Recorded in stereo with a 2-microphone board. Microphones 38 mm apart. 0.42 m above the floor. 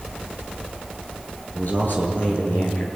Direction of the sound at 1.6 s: 55° left (ahead or behind).